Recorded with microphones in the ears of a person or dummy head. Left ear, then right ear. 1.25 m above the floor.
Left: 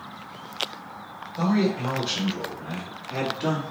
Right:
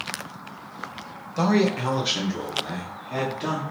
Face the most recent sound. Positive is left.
turn(degrees=5)  # may be behind; listen again after turning